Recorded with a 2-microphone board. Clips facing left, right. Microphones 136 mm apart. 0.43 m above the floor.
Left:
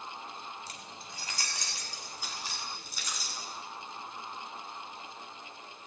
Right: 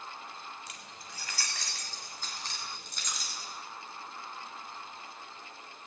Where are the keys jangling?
35° left (ahead or behind), 1.7 m; by 3.5 s centre (ahead or behind), 3.5 m.